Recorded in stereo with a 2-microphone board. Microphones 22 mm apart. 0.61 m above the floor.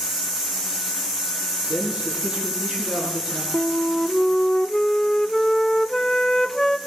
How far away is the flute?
About 0.5 m.